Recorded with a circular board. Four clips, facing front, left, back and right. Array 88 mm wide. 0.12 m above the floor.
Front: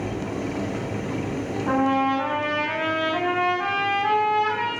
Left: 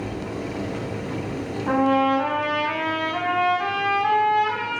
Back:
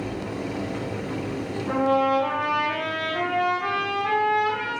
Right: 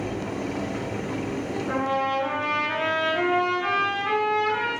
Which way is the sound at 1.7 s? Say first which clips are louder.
Left 7 dB, even; 60° left.